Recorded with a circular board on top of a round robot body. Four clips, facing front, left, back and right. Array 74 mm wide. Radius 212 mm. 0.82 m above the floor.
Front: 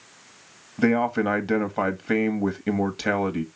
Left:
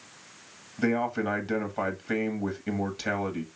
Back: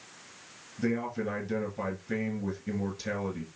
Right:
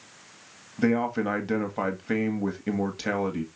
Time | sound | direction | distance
0.8 | a man speaking | 5° right | 1.7 m